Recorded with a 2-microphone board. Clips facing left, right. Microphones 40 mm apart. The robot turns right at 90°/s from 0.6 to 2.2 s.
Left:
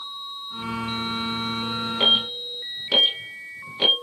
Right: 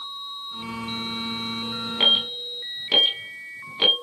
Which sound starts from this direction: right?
An alarm, at 2.0 s.